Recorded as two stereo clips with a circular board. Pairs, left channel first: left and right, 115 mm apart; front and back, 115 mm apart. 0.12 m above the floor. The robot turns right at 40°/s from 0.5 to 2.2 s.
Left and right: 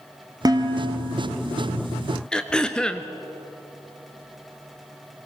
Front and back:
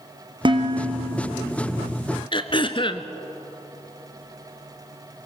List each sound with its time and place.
0.5 s dishes clattering: 140° right, 2 m; by 1.3 s 110° right, 2 m
2.3 s throat clearing: 10° left, 1.0 m